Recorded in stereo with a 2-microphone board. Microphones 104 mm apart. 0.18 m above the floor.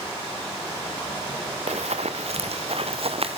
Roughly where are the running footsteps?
Right.